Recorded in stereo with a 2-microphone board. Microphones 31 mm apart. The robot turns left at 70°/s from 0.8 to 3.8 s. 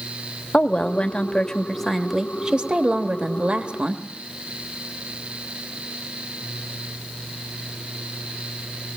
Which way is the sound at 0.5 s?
80° left.